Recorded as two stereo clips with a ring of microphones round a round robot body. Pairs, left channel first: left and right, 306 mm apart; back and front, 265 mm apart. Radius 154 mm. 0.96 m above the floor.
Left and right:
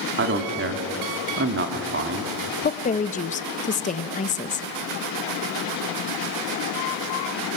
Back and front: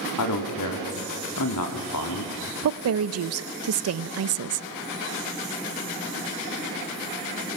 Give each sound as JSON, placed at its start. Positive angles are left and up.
{"t": 0.2, "sound": "a man speaking", "azimuth_deg": -145, "distance_m": 2.5}
{"t": 2.6, "sound": "a woman speaking", "azimuth_deg": 25, "distance_m": 0.8}